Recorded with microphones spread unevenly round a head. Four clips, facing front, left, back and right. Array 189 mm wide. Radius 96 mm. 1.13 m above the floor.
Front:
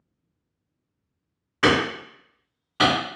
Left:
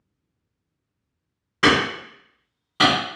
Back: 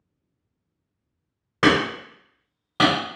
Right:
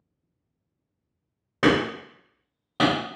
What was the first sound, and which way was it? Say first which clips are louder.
Hammering: left 2 dB, back 1 dB; 135° right.